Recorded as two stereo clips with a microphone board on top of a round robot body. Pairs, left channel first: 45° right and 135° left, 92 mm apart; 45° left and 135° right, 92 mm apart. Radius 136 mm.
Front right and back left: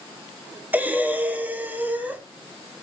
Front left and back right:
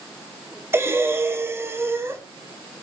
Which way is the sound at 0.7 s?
170° right.